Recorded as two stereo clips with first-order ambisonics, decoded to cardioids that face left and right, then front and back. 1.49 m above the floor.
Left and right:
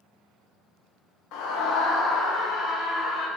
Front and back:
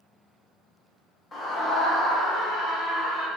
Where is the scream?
70° left, 0.6 m; by 3.3 s 35° left, 1.6 m.